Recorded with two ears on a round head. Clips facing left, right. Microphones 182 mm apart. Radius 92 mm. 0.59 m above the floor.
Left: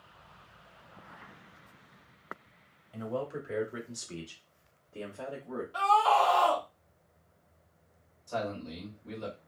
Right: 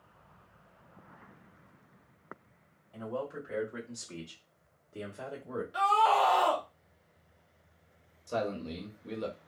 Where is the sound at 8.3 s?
40° right (ahead or behind), 1.0 m.